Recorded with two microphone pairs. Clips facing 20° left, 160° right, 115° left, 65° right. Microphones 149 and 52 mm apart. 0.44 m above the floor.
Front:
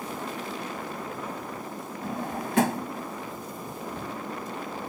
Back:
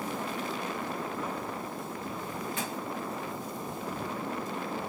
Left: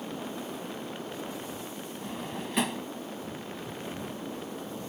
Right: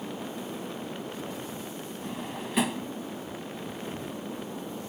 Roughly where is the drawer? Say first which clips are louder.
Front 4 dB, even; ahead left.